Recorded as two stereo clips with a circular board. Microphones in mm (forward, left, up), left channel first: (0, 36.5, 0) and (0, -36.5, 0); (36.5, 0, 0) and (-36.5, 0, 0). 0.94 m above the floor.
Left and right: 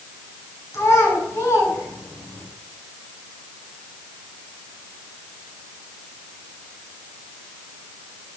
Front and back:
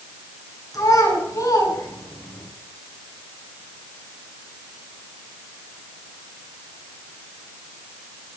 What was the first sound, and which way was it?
A child speaking, 40° left.